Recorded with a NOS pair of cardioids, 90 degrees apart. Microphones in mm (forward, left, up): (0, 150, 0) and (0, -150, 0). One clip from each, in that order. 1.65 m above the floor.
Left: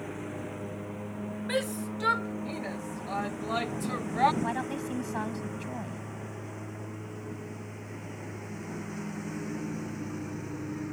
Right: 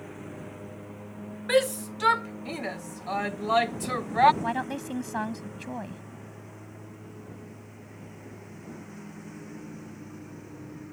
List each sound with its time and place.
0.0 s a lawn mower: 30° left; by 10.9 s 50° left
1.5 s a shout: 40° right
4.4 s a woman speaking: 30° right